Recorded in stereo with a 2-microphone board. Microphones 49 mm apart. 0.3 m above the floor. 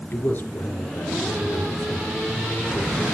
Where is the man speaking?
40° left (ahead or behind), 4 m.